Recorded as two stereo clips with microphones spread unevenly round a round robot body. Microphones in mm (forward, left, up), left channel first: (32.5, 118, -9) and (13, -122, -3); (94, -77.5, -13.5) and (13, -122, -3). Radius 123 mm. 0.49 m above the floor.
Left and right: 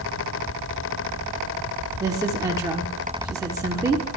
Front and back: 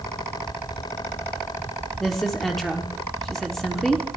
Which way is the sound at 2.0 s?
40° right.